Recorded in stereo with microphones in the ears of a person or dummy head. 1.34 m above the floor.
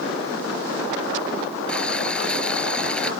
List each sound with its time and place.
1.7 s boiling: 5° left (ahead or behind)